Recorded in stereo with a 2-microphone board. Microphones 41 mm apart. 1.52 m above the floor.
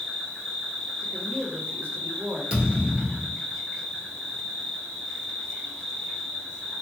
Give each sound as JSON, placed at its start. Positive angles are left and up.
{"t": 0.0, "sound": "an insect", "side_deg": 10, "distance_m": 0.8}
{"t": 1.0, "sound": "a woman speaking", "side_deg": -55, "distance_m": 0.8}
{"t": 2.5, "sound": "a thud", "side_deg": -25, "distance_m": 1.6}